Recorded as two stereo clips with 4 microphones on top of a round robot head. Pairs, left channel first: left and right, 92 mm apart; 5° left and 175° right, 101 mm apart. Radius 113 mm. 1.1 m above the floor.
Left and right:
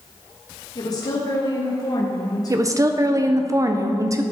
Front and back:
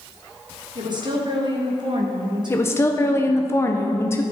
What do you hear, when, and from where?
0.8 s a woman speaking: 140° left, 1.5 m
2.5 s a woman speaking: 50° right, 0.6 m